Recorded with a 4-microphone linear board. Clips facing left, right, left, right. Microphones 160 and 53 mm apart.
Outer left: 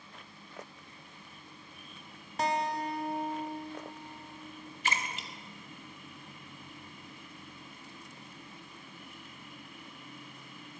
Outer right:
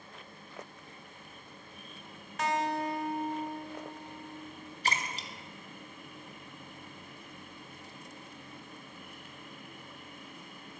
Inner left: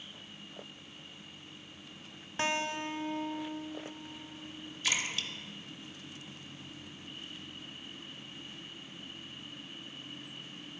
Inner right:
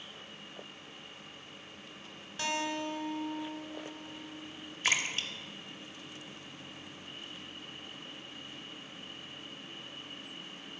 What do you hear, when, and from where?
2.4 s a guitar: 35° left (ahead or behind), 0.5 m
4.8 s a splash: 40° right (ahead or behind), 0.6 m